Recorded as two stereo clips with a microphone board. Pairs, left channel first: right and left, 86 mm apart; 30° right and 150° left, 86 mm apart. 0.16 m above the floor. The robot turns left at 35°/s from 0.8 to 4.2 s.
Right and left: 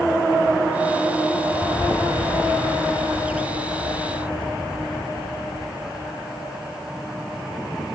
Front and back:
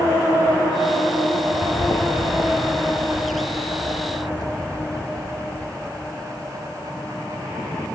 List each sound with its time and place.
1.5 s footsteps: 50° right, 0.5 m; by 6.1 s 65° right, 3 m